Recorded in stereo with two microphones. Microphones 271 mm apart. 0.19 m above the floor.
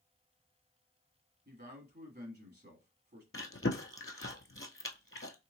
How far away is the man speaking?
About 1.3 m.